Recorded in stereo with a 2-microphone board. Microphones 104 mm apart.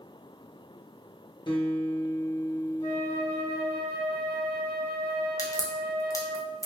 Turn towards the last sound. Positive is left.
turn(degrees=30)  # may be behind; listen again after turning